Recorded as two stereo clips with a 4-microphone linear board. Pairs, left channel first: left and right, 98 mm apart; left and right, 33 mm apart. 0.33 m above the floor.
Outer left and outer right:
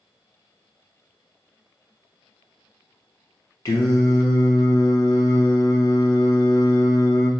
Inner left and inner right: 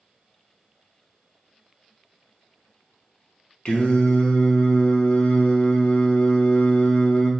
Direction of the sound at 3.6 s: 45° left (ahead or behind).